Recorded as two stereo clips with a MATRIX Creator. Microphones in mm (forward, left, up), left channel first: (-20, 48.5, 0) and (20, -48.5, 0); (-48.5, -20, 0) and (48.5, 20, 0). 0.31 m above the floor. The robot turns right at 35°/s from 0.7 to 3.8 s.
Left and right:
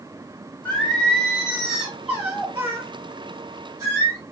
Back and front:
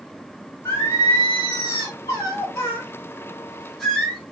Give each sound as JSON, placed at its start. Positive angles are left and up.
{"t": 0.7, "sound": "singing", "azimuth_deg": 175, "distance_m": 1.3}